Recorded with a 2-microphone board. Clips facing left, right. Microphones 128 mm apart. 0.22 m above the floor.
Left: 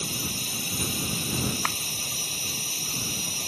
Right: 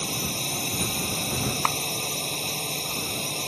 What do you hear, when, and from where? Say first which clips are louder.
0.0 s a drone: right 3 dB; 55° right (ahead or behind)
1.6 s a clap: right 5 dB; 40° right (ahead or behind)